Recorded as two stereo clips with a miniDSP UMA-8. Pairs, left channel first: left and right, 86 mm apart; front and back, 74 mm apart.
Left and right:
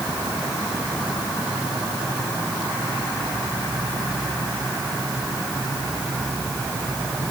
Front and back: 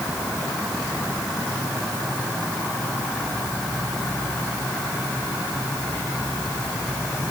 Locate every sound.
Only background noise.